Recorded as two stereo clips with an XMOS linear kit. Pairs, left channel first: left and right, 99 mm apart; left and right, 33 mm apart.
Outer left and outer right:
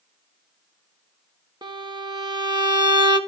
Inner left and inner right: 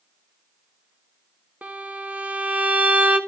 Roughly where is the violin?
Right.